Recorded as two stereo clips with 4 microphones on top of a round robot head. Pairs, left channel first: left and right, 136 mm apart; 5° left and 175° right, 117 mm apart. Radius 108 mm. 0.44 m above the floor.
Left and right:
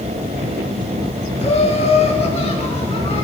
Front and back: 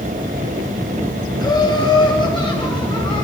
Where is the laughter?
55° left, 3.5 m; by 3.2 s 50° left, 5.5 m.